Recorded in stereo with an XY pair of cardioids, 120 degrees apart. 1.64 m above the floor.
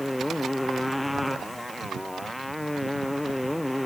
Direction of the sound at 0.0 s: 5° left.